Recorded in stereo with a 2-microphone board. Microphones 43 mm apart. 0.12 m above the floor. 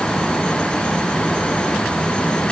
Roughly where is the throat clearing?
I don't hear throat clearing.